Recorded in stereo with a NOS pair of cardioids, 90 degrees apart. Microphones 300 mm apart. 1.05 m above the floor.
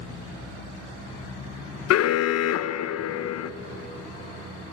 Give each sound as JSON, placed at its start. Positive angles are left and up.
{"t": 1.9, "sound": "an alarm", "azimuth_deg": 60, "distance_m": 0.7}